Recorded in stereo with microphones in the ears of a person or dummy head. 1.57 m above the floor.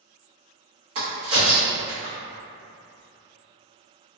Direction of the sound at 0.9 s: 30° right (ahead or behind).